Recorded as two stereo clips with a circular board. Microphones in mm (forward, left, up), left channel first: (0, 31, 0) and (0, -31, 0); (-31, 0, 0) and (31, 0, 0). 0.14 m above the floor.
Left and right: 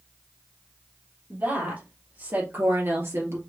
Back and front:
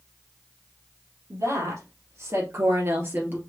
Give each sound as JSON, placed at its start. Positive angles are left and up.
{"t": 1.3, "sound": "a woman speaking", "azimuth_deg": -30, "distance_m": 3.0}